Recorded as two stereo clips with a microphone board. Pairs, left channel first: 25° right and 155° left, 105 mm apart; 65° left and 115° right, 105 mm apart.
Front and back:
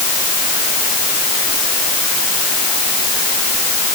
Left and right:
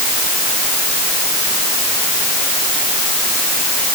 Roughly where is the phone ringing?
I don't hear a phone ringing.